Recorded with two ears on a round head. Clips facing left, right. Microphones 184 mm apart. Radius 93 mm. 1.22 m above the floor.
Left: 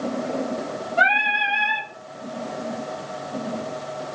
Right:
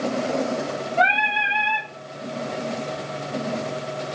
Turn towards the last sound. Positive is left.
turn(degrees=10)  # may be behind; listen again after turning